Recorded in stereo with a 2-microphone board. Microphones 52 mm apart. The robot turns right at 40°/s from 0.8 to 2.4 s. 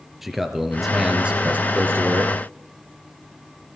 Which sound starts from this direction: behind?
A man speaking, at 0.2 s.